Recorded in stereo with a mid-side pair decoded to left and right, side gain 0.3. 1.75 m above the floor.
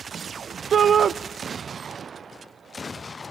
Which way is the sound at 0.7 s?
65° right.